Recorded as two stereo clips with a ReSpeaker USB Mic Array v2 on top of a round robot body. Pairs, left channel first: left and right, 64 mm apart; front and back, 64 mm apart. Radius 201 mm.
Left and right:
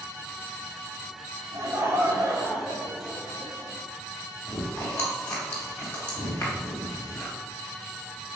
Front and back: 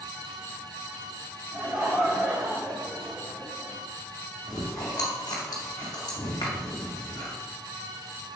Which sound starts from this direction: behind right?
Laughter, at 1.5 s.